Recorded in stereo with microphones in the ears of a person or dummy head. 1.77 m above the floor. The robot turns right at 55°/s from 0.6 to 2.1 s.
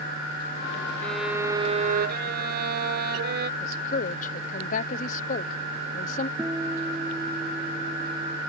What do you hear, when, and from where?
1.0 s a violin: 175° left; by 3.5 s 130° right
3.6 s a woman speaking: 45° left (ahead or behind)
6.4 s a guitar: 10° right (ahead or behind)